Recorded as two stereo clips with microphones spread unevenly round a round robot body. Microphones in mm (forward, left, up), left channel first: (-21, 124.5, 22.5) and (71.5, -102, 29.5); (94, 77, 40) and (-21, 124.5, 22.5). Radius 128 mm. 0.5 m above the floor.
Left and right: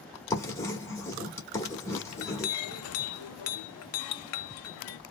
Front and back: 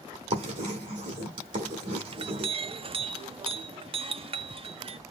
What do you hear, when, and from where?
0.3 s writing: 170° right, 1.4 m
2.1 s a clink: 120° left, 0.5 m